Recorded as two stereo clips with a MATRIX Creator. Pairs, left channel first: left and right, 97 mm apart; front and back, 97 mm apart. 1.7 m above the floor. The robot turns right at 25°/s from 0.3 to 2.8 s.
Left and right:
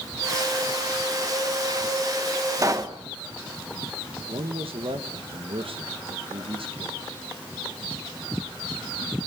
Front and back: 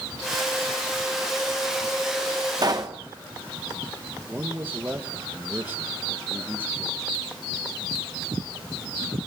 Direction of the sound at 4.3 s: 110° right.